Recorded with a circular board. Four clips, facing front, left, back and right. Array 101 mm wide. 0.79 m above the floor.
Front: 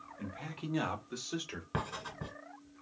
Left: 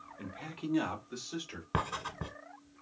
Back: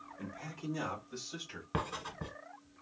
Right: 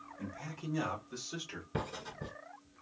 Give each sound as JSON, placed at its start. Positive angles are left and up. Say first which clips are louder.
{"t": 0.2, "sound": "a man speaking", "louder": "left 2 dB, front 1 dB", "azimuth_deg": 80, "distance_m": 0.9}
{"t": 1.7, "sound": "writing", "louder": "left 5 dB, back 1 dB", "azimuth_deg": 95, "distance_m": 1.1}